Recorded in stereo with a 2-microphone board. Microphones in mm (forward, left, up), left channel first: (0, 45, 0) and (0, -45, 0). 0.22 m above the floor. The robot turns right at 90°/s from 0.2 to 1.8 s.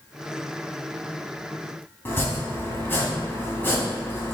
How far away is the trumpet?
No trumpet in this recording.